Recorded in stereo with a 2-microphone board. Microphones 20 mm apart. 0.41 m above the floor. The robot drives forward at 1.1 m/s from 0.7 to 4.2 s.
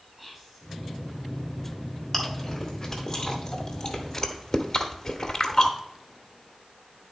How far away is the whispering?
About 4 m.